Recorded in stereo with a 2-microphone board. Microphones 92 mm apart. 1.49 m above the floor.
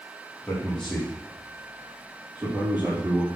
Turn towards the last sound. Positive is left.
turn(degrees=-25)  # may be behind; listen again after turning